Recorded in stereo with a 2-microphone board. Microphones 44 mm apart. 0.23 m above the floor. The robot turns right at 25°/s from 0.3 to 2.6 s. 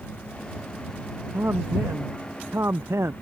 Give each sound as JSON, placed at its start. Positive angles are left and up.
{"t": 1.3, "sound": "a man speaking", "azimuth_deg": -115}